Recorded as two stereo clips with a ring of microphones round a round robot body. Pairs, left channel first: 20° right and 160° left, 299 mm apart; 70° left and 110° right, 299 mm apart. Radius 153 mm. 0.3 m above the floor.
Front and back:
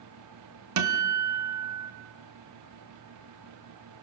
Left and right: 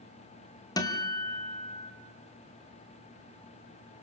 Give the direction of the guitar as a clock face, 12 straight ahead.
7 o'clock.